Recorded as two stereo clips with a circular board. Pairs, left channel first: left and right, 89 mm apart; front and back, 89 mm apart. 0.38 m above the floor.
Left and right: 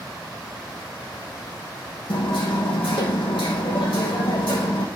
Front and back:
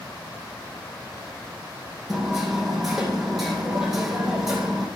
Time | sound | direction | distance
2.1 | hammering | 90° left | 4.5 m